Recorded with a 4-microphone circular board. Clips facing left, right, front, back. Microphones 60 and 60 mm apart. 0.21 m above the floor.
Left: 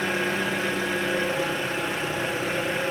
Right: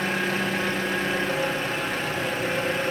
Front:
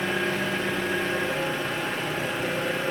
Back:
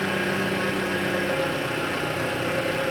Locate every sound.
0.0 s an engine running: 155° left, 2.5 m